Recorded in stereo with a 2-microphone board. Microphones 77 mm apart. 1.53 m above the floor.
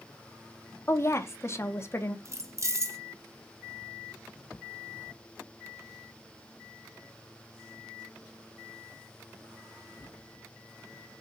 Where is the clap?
No clap in this recording.